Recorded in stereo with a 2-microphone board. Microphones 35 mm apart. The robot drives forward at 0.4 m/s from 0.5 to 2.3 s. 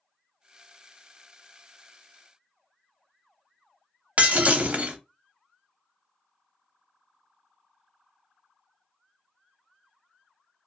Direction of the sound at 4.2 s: 45° right (ahead or behind).